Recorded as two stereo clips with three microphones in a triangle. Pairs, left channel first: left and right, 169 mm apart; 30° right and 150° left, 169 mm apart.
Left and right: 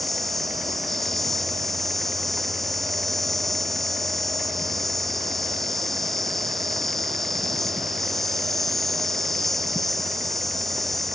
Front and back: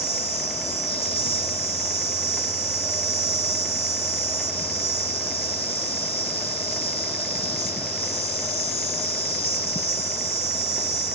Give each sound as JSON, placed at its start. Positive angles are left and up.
{"t": 0.0, "sound": "an insect", "azimuth_deg": 0}